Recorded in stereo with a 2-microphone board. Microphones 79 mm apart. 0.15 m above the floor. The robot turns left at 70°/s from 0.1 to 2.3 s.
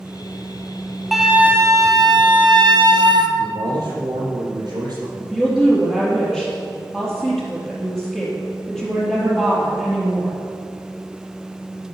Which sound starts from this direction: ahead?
A flute, at 1.1 s.